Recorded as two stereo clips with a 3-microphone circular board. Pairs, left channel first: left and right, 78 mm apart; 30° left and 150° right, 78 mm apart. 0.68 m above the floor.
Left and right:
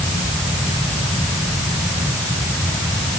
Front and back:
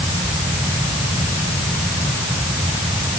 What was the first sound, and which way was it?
Only background noise.